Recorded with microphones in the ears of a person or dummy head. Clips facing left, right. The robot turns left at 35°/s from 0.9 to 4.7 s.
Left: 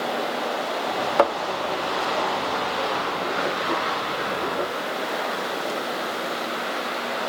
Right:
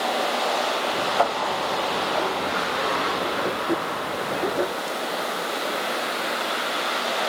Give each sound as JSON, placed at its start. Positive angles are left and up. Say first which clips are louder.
{"t": 1.2, "sound": "a thud", "louder": "left 3 dB", "side_deg": 70, "distance_m": 1.0}